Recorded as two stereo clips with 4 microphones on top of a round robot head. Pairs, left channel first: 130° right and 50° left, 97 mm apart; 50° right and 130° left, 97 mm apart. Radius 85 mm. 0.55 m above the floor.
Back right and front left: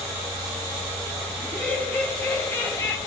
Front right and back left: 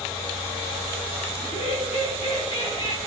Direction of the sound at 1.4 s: 50° right.